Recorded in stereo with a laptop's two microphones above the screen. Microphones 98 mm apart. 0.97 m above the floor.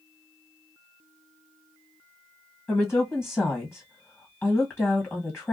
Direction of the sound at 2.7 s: 25° left (ahead or behind).